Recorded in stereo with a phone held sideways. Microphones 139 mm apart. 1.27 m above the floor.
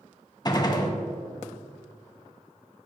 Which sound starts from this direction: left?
A gunshot, at 0.5 s.